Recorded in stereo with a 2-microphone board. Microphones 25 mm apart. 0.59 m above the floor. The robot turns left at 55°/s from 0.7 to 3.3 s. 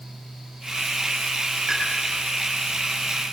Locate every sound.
1.7 s a pop: 15° right (ahead or behind), 8.5 m; by 1.8 s 25° right (ahead or behind), 8.5 m